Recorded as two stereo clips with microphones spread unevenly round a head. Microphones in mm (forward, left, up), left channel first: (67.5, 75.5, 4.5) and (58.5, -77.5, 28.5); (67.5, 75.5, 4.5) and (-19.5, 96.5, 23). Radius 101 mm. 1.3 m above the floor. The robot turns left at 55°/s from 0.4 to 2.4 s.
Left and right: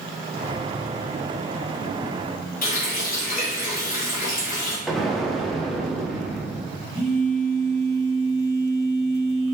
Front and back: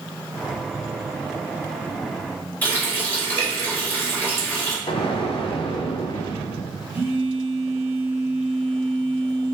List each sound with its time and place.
2.6 s a running tap: 60° left, 2.5 m
4.9 s an explosion: straight ahead, 0.9 m
6.9 s a phone buzzing: 100° left, 2 m